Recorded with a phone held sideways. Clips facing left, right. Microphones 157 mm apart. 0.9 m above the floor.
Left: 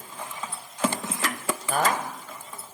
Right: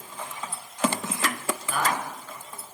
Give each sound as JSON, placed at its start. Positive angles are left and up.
{"t": 1.7, "sound": "a man speaking", "side_deg": 45, "distance_m": 5.5}